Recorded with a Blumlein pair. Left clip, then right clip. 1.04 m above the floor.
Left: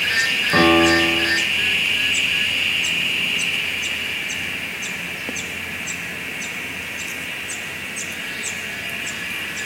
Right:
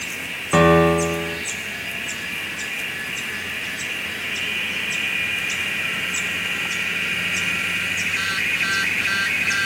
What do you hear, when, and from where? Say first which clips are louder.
0.5 s a piano: even; 10° right, 3 m